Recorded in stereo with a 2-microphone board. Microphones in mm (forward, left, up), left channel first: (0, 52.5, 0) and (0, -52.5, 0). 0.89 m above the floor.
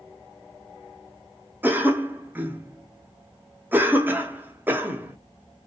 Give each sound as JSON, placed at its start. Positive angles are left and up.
{"t": 1.6, "sound": "a cough", "side_deg": -20, "distance_m": 0.6}